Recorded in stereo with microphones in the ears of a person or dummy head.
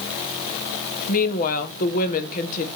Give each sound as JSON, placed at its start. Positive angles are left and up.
{"t": 1.1, "sound": "a woman speaking", "side_deg": 50, "distance_m": 1.6}